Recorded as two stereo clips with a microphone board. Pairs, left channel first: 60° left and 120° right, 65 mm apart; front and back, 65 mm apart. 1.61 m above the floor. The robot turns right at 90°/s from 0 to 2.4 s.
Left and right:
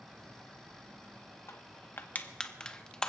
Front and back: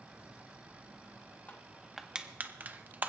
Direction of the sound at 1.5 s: 50° left.